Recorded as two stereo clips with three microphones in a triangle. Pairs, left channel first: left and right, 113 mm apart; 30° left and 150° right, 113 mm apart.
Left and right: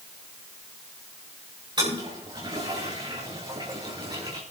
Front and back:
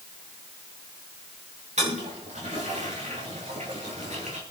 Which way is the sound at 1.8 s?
140° right.